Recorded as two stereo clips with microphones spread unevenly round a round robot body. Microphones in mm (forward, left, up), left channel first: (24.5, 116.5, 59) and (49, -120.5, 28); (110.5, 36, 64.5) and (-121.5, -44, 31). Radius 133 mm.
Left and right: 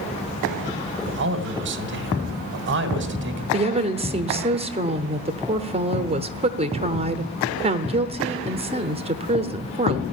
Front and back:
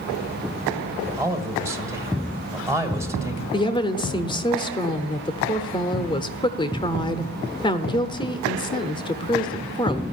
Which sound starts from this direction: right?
A man speaking, at 1.1 s.